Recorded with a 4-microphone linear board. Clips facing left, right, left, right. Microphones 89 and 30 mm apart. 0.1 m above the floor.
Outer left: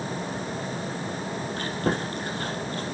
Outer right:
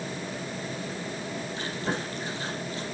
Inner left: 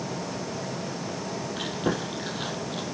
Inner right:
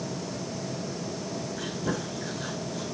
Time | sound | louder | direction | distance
1.6 | chewing | outer left 5 dB, inner left 4 dB | 55° left (ahead or behind) | 3.5 m